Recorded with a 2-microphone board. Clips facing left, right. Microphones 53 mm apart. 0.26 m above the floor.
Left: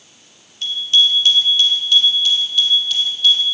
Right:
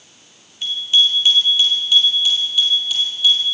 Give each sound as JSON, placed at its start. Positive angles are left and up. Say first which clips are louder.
{"t": 0.6, "sound": "a bicycle bell", "louder": "left 1 dB", "side_deg": -10, "distance_m": 4.5}